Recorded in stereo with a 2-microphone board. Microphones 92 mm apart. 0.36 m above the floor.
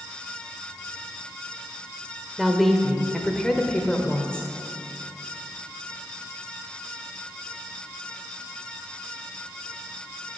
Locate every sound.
2.4 s a woman speaking: centre (ahead or behind), 1.4 m; by 4.5 s 15° left (ahead or behind), 1.5 m